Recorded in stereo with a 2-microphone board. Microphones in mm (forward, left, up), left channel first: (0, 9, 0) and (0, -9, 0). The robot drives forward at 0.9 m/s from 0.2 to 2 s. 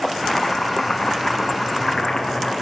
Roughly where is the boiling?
Left.